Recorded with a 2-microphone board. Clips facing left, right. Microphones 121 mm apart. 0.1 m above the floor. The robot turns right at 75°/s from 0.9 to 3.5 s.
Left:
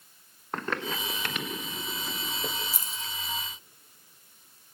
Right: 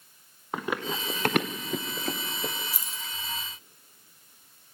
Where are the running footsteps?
5° right (ahead or behind), 1.8 m; by 2.5 s centre (ahead or behind), 1.3 m.